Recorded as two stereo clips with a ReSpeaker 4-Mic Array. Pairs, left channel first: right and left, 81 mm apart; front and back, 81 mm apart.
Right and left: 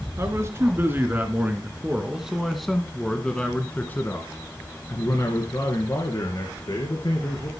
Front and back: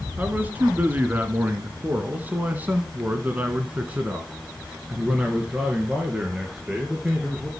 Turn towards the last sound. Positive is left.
turn(degrees=-100)